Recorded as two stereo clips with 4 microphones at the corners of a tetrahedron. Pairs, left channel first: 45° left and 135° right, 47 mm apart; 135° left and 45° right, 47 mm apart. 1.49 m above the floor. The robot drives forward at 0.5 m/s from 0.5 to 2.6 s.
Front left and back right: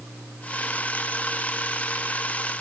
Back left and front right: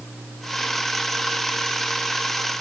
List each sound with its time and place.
Only background noise.